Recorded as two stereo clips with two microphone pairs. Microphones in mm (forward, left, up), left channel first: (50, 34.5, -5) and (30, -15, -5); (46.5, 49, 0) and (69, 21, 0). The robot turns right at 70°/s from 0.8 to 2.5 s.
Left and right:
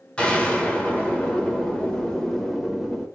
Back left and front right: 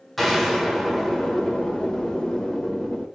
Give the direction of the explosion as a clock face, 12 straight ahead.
11 o'clock.